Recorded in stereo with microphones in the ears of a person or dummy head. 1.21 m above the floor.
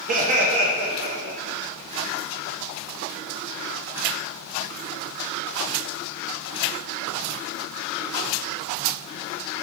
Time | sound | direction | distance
0.1 | laughter | 35° right (ahead or behind) | 0.5 m